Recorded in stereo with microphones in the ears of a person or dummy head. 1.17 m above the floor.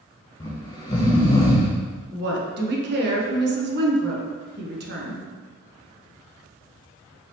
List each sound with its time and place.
0.4 s snoring: 20° left (ahead or behind), 0.6 m
2.1 s a woman speaking: 45° right (ahead or behind), 0.7 m